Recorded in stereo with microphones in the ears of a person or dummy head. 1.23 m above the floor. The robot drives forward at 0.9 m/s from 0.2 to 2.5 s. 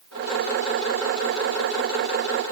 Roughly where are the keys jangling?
No keys jangling in this recording.